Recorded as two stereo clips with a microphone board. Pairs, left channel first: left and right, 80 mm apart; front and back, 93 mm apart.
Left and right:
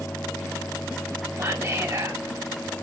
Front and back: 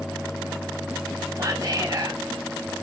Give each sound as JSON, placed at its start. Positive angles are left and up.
{"t": 1.4, "sound": "whispering", "azimuth_deg": -135, "distance_m": 1.1}